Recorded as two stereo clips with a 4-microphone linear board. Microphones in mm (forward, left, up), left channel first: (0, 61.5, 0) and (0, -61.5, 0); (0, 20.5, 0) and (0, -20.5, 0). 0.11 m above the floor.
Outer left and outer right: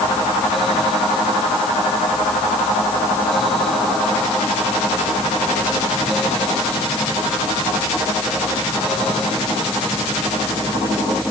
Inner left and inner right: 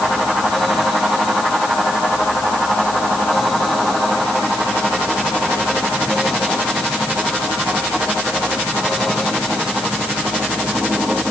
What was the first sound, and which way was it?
Only background noise.